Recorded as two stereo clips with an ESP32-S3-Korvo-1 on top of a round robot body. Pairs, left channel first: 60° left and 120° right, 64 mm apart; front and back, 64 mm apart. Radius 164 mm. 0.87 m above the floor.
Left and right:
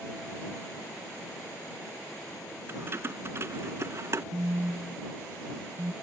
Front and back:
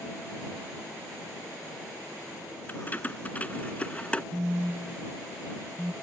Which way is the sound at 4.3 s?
95° right.